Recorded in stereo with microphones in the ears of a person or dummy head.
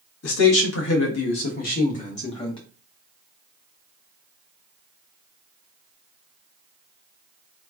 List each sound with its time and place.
0.2 s a man speaking: 80° left, 1.4 m; by 2.6 s 20° left (ahead or behind), 1.2 m